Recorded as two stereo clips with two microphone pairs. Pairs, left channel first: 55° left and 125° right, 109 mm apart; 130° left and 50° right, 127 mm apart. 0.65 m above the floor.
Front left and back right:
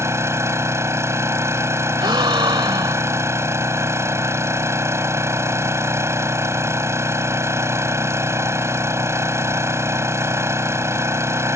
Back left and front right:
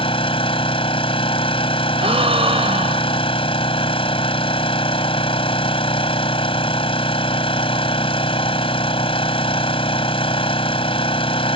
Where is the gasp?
85° right.